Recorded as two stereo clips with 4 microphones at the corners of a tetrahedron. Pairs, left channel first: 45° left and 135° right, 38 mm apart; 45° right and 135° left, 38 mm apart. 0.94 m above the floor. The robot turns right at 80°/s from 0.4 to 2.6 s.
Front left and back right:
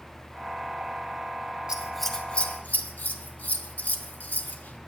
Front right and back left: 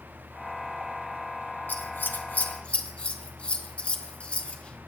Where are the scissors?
70° right, 1.0 m; by 4.8 s 5° left, 1.0 m.